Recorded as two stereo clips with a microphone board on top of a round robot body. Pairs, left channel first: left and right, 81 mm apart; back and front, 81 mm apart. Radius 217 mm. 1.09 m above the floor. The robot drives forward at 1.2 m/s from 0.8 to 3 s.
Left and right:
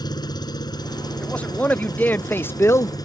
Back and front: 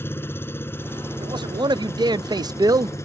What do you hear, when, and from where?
0.0 s an engine running: 120° left; by 3.0 s 125° left
1.2 s a man speaking: 15° left; by 3.0 s 40° left